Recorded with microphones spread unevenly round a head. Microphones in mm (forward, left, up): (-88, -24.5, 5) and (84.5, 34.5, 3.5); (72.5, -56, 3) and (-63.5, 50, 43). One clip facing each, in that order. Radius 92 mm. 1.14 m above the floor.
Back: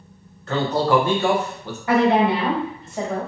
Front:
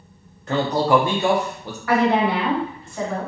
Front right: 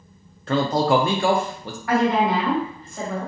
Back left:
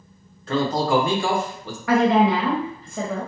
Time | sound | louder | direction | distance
0.5 | a man speaking | front 1 dB, front right 1 dB | 55° right | 0.6 m
1.9 | a woman speaking | back 2 dB, back left 2 dB | 130° left | 0.9 m